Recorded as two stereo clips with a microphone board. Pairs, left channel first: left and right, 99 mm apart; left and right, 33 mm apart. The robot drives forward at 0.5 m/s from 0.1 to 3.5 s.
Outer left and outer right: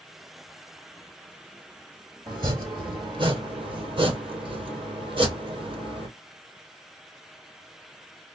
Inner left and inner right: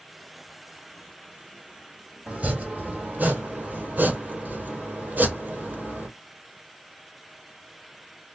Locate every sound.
2.3 s chopping: 40° right (ahead or behind), 2.0 m; by 6.1 s 55° right (ahead or behind), 1.6 m